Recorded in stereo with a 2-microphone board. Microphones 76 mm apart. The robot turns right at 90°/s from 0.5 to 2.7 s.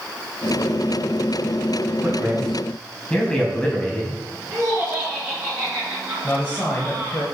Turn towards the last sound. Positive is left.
turn(degrees=25)  # may be behind; listen again after turning